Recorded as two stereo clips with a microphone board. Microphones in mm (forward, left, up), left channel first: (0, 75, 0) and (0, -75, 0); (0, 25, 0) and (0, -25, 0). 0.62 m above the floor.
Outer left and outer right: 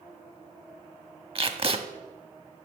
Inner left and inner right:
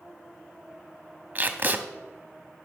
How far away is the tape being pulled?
About 0.6 m.